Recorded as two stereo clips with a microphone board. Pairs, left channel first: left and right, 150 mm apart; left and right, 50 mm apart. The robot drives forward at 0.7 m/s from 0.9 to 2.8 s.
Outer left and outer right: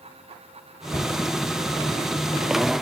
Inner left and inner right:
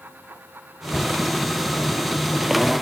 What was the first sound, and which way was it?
A cupboard door, 25° left (ahead or behind).